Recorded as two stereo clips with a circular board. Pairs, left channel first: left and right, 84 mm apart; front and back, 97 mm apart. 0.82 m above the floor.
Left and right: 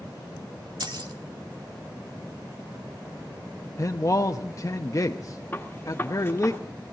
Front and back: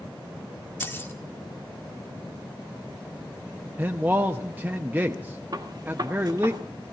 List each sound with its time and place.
0.8 s keys jangling: 65° right, 1.4 m
3.8 s a man speaking: 115° left, 0.7 m
5.5 s a gunshot: 150° left, 1.4 m